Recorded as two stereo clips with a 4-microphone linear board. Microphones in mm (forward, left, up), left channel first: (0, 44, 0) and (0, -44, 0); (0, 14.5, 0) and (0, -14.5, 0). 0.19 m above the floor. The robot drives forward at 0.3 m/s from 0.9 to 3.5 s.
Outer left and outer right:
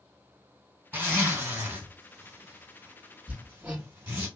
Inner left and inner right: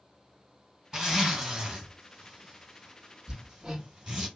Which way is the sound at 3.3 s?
20° right (ahead or behind).